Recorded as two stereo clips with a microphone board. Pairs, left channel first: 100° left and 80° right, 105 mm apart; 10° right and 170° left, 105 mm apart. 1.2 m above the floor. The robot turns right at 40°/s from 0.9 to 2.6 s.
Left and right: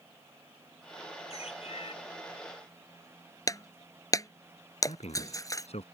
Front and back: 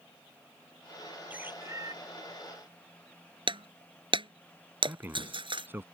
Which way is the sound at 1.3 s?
95° left.